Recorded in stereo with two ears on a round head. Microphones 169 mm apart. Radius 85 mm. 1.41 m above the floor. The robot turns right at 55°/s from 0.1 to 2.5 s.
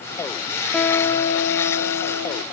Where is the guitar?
5° left, 0.6 m; by 2.4 s 95° left, 0.6 m.